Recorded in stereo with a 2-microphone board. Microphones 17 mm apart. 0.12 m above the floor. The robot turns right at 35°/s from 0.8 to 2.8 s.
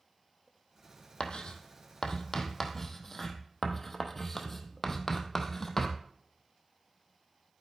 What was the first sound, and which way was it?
Writing, 75° left (ahead or behind).